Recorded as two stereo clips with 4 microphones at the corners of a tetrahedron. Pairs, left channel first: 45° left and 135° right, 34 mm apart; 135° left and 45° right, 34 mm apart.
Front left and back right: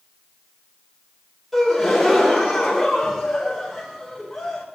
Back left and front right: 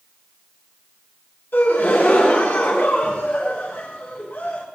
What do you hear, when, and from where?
1.5 s a gasp: 130° left, 3.5 m